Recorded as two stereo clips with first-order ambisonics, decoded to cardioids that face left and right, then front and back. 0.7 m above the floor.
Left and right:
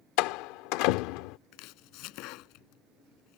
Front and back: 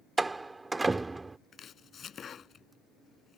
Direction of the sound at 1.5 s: 60° left.